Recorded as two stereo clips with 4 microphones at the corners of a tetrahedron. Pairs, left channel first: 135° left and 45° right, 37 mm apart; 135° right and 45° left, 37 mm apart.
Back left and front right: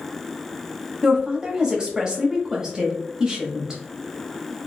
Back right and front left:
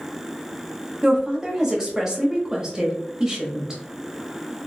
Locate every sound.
1.0 s a woman speaking: straight ahead, 1.2 m